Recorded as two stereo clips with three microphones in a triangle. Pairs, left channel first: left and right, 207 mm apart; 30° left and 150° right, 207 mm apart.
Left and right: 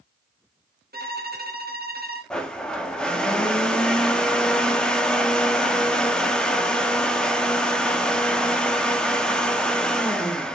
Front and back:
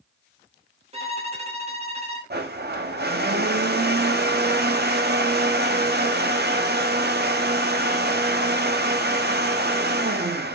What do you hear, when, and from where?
0.9 s a violin: 100° right, 1.1 m
2.3 s a blender: 175° left, 0.7 m